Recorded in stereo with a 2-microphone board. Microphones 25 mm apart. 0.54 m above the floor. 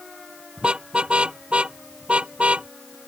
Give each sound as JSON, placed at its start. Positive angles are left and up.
{"t": 0.6, "sound": "a car horn", "side_deg": -45}